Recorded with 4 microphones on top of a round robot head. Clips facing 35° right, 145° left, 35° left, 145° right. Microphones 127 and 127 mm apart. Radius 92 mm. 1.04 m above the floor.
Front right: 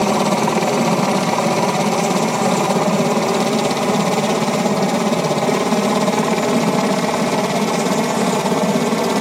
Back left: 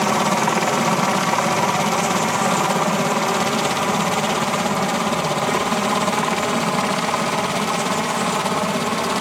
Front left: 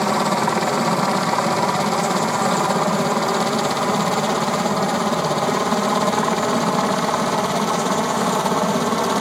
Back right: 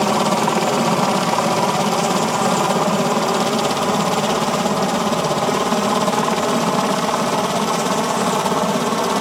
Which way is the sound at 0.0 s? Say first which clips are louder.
Front right 3 dB, back right 2 dB; 75° right.